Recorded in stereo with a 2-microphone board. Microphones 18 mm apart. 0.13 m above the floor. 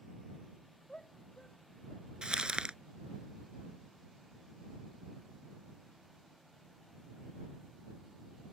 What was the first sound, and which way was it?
A shout, 45° left (ahead or behind).